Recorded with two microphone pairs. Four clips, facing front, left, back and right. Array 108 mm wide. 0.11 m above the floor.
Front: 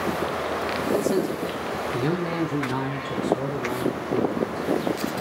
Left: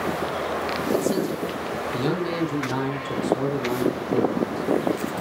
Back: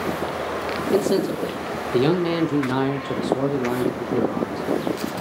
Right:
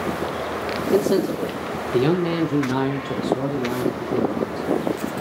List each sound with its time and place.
0.9 s a man speaking: 130° right, 4 m; by 5.1 s 175° left, 7 m